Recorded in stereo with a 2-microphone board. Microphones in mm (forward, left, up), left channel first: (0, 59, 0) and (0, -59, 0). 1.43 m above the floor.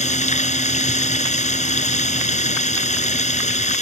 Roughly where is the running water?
Left.